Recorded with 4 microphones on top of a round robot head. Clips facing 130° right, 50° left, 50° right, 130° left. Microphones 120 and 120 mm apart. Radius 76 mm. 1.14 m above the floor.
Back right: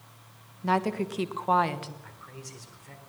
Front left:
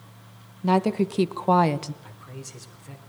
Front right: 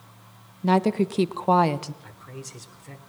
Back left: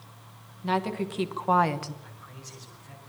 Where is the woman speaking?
15° right, 1.5 m; by 1.9 s 15° left, 1.0 m.